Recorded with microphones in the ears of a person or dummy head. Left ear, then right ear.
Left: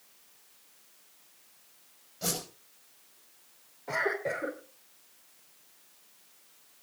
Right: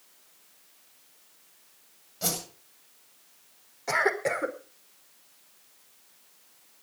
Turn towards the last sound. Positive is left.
turn(degrees=-75)  # may be behind; listen again after turning